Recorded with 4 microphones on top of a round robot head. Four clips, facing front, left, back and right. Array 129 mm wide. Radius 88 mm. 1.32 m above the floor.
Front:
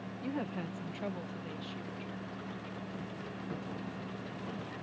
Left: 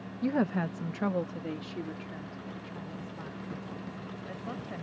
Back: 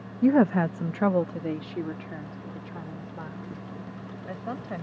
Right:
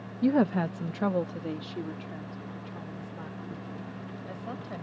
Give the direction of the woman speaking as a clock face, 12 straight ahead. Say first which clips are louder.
Right 5 dB, back 18 dB; 5 o'clock.